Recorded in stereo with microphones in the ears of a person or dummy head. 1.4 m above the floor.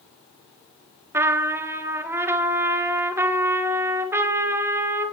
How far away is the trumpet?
About 0.5 m.